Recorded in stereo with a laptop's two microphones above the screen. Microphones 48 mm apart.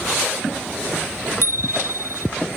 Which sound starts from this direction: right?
A bicycle bell, at 1.4 s.